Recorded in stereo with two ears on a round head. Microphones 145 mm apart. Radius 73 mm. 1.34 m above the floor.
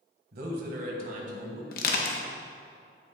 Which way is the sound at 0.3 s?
65° right (ahead or behind).